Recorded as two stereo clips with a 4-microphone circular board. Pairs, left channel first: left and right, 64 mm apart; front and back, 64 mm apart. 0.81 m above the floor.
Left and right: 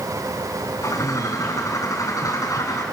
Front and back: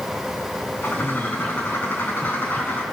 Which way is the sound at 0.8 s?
60° left.